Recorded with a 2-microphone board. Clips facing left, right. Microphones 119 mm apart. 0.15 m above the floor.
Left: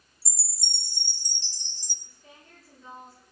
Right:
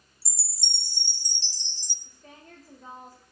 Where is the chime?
50° left (ahead or behind), 1.4 m.